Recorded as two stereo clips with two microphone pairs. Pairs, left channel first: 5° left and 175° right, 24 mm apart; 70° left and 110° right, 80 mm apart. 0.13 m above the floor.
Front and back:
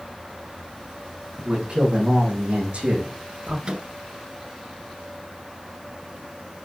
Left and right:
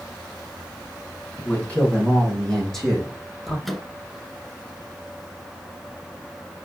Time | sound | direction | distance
1.4 | a man speaking | 140° left | 6.5 m
3.6 | a microwave | 160° left | 1.5 m